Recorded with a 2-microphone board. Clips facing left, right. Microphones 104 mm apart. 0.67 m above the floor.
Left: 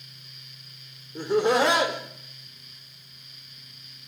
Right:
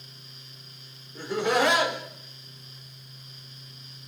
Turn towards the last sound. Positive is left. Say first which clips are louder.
# left 3 dB
turn(degrees=30)  # may be behind; listen again after turning